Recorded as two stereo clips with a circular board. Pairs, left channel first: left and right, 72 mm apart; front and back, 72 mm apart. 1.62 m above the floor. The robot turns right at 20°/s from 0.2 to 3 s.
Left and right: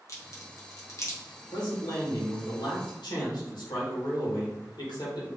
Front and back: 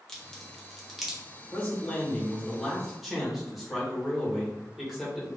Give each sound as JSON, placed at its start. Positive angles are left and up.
{"t": 0.1, "sound": "a crack", "azimuth_deg": 80, "distance_m": 1.3}
{"t": 1.5, "sound": "a man speaking", "azimuth_deg": 65, "distance_m": 1.9}